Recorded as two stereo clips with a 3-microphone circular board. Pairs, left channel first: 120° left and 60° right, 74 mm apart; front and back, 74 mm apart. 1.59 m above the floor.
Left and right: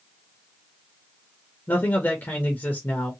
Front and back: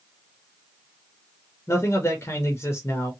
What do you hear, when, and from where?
1.7 s a man speaking: 55° left, 0.6 m